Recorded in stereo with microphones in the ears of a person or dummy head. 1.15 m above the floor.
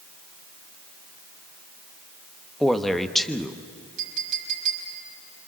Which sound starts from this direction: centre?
A man speaking, at 2.6 s.